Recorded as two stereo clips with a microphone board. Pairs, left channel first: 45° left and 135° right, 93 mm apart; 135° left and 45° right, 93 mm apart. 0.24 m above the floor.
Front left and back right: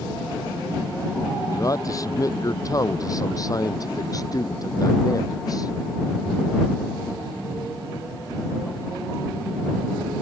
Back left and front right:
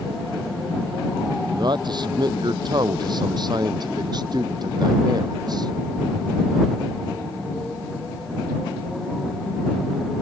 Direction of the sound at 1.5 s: 5° right.